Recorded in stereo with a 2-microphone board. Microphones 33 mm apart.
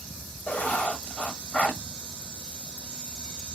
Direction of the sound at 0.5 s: 45° left (ahead or behind).